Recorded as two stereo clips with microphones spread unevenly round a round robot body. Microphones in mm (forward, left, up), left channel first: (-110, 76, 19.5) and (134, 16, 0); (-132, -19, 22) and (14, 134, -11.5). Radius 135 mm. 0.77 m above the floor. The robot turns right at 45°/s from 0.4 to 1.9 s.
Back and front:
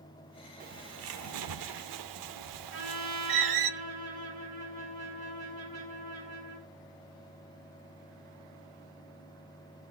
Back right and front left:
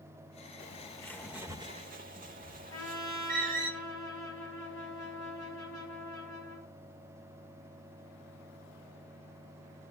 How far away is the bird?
About 0.8 m.